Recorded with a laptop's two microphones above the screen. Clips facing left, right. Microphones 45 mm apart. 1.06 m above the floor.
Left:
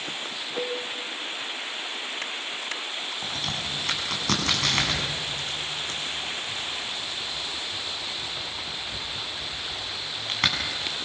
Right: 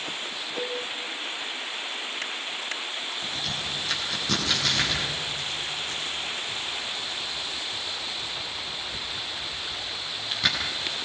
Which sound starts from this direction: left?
A crack, at 3.2 s.